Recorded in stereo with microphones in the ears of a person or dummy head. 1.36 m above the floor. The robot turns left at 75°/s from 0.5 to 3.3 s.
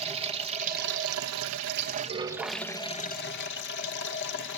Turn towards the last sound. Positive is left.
turn(degrees=120)